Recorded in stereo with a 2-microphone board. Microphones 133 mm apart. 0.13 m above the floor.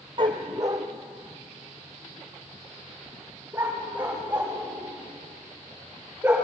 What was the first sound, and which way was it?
A dog barking, 40° right (ahead or behind).